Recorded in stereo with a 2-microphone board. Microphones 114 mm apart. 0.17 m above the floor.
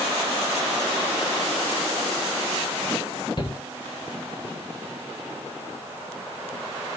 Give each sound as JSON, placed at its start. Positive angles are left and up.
{"t": 3.4, "sound": "a shout", "side_deg": 45, "distance_m": 3.0}